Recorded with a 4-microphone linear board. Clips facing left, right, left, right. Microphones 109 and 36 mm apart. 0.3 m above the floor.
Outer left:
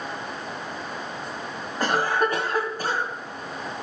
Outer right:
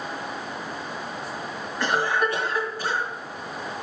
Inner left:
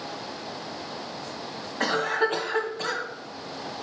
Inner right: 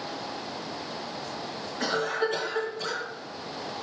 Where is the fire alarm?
I don't hear a fire alarm.